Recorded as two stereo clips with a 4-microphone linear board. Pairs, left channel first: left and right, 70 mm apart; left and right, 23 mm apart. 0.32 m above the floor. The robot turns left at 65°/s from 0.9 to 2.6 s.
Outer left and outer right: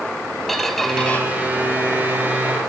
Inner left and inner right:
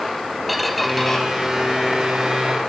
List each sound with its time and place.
0.5 s a squeak: centre (ahead or behind), 0.8 m; by 1.2 s 25° left (ahead or behind), 0.8 m